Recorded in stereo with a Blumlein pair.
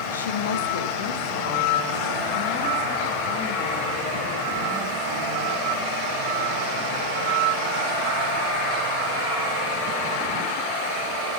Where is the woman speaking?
70° left, 0.9 m; by 6.0 s 35° left, 4.5 m.